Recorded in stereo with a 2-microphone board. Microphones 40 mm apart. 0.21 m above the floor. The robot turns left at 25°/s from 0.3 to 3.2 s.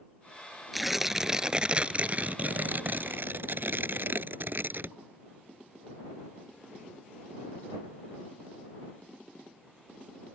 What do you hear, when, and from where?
0.7 s tearing paper: straight ahead; by 5.0 s 60° right